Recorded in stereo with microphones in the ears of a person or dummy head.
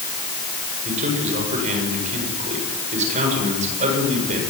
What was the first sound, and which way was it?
A man speaking, 45° right (ahead or behind).